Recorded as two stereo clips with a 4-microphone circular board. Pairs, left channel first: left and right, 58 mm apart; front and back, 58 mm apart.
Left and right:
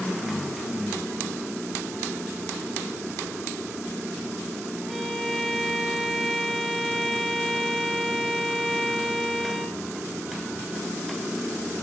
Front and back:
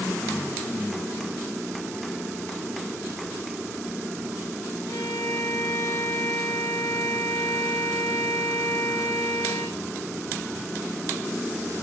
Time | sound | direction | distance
4.9 | a violin | 5° right | 6.5 m